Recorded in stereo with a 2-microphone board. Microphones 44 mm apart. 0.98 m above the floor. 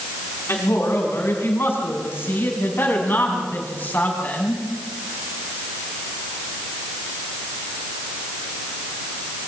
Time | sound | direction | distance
0.5 | a woman speaking | 75° left (ahead or behind) | 7.5 m